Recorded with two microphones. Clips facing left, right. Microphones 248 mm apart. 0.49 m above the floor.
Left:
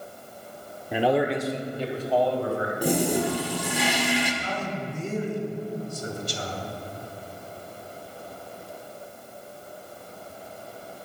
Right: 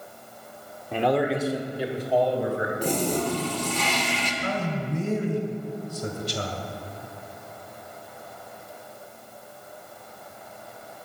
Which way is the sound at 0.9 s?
15° left (ahead or behind).